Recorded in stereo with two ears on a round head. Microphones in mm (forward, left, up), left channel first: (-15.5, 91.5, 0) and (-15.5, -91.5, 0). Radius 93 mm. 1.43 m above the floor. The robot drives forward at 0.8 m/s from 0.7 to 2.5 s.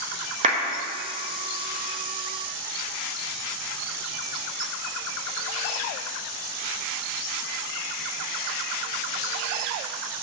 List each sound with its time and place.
0.4 s a clap: 40° right (ahead or behind), 1.5 m